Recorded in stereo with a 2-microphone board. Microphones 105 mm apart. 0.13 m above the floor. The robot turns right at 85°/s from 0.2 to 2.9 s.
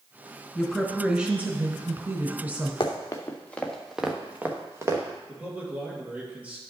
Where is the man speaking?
10° right (ahead or behind), 2.5 m.